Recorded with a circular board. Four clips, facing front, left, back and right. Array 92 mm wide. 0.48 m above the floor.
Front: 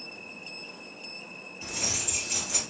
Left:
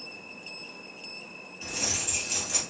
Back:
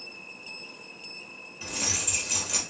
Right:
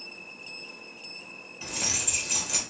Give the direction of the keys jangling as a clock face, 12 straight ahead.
4 o'clock.